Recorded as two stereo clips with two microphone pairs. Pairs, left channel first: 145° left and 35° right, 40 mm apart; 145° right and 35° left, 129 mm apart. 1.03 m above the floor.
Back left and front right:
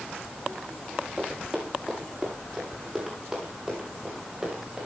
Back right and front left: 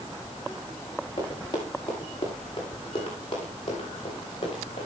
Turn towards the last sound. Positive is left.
turn(degrees=-100)